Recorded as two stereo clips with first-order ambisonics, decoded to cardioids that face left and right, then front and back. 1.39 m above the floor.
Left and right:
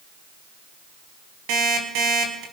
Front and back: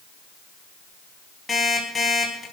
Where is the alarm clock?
75° right, 4.5 m.